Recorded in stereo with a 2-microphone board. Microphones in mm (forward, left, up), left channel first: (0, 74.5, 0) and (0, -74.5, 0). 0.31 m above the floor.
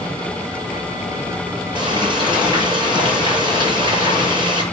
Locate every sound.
1.8 s frying: 30° right (ahead or behind), 6.5 m